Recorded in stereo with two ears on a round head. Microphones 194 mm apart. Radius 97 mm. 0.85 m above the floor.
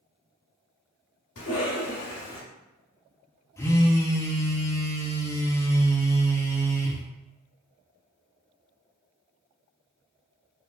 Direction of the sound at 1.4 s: 65° left (ahead or behind).